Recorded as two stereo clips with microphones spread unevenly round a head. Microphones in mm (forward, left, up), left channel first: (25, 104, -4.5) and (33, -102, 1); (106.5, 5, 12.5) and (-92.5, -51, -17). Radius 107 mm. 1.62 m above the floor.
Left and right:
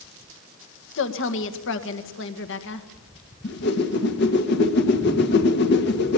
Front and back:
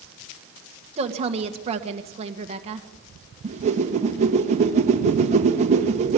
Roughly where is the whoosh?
Behind left.